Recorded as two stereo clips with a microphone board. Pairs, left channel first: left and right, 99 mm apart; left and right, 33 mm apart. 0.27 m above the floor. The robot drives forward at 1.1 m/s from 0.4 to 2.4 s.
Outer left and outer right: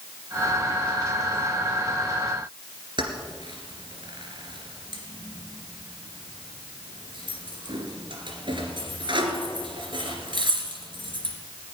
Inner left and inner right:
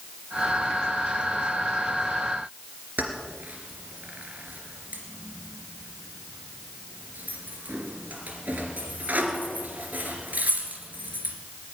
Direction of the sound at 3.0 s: 55° right (ahead or behind).